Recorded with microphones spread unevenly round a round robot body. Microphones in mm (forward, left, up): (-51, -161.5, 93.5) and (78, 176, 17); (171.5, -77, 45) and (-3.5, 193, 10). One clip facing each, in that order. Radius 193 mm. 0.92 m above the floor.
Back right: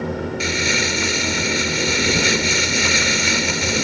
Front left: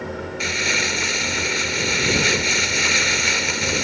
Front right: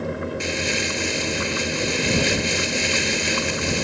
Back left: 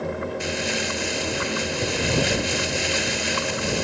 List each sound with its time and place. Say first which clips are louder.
0.4 s crumpling: back right 4 dB, front right 1 dB; 125° right